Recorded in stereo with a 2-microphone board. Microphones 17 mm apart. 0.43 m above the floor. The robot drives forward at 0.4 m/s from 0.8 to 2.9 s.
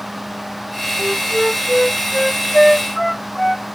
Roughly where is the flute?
Centre.